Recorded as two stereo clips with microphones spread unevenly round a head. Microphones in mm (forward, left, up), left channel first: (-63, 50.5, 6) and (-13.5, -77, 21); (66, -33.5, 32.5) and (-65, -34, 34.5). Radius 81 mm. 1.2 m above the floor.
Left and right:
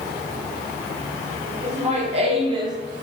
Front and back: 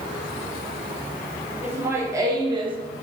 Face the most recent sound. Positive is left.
turn(degrees=-130)